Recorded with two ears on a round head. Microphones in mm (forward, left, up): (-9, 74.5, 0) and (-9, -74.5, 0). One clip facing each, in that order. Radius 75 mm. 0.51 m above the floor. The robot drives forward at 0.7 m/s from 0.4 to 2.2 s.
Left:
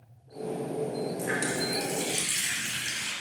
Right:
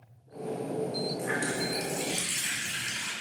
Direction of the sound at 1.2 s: 45° left (ahead or behind).